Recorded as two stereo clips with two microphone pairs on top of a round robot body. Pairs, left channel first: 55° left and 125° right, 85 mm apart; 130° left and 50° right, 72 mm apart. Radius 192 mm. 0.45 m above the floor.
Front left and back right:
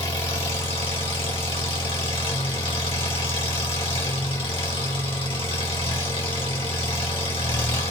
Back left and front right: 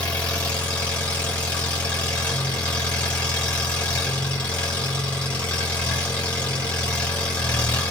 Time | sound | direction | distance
0.0 | an engine running | 60° left | 2 m